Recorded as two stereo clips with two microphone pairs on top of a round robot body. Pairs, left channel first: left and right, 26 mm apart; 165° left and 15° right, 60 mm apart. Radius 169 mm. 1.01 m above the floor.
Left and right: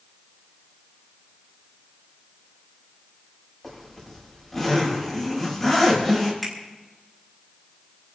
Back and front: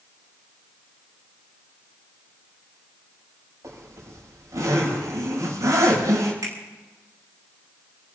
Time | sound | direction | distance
3.6 | a zipper | 20° left | 8 m
6.4 | a finger snap | 15° left | 6 m